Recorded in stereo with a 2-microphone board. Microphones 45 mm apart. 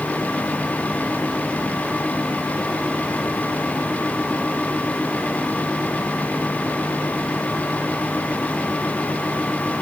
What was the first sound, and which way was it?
Only background noise.